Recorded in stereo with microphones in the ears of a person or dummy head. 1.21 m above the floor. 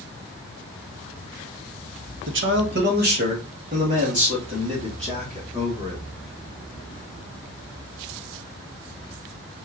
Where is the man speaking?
60° right (ahead or behind), 0.7 m; by 6.0 s 30° right (ahead or behind), 2.5 m.